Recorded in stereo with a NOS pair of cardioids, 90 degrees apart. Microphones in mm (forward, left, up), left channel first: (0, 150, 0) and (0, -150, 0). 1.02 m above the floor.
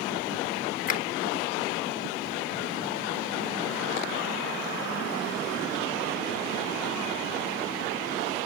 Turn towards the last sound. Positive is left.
turn(degrees=25)